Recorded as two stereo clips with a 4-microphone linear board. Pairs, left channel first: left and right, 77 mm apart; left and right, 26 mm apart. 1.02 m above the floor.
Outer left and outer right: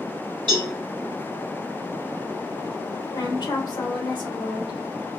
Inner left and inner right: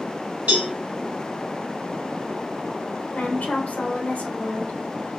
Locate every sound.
0.5 s a cowbell: 80° right, 1.6 m
3.1 s a woman speaking: 75° left (ahead or behind), 1.3 m